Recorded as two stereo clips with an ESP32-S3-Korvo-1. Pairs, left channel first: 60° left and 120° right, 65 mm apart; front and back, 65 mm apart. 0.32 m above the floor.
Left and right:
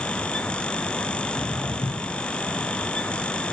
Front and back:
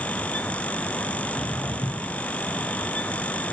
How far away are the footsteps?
About 2 m.